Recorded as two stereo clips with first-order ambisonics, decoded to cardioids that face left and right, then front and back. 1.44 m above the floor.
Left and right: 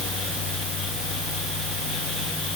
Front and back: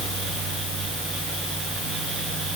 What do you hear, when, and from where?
Only background noise.